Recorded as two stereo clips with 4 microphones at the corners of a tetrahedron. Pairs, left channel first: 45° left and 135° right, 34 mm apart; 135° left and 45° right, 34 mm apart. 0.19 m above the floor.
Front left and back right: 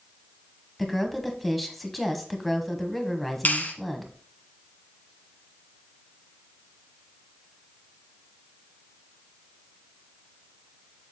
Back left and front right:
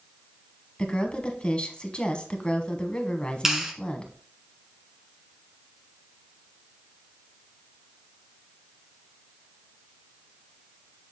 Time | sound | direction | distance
0.8 | a woman speaking | 135° left | 1.2 m
3.5 | a clap | 30° left | 1.3 m